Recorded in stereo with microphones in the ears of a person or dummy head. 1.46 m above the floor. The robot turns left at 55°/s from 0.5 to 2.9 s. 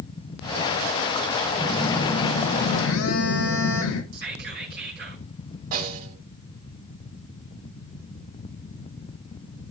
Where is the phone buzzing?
175° left, 1.3 m; by 4.0 s 105° left, 1.3 m.